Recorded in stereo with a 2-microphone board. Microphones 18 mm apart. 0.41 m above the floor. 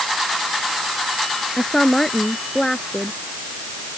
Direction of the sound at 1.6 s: 25° left (ahead or behind).